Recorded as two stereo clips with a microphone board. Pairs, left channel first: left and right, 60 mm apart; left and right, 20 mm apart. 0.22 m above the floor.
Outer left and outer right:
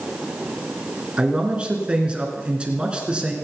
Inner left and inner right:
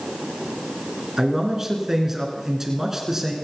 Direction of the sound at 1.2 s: 20° right (ahead or behind).